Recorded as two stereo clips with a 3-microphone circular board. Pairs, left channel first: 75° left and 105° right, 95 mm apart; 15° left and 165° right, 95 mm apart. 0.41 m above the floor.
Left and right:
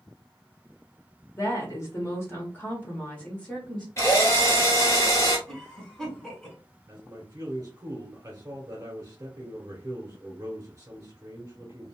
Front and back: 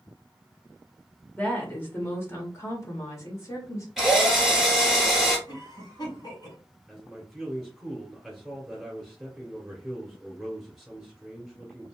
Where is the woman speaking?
75° left, 1.5 m; by 3.9 s 5° right, 1.6 m.